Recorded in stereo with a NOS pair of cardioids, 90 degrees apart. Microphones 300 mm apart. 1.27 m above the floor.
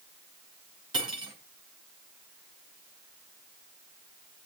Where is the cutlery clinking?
15° right, 4.5 m.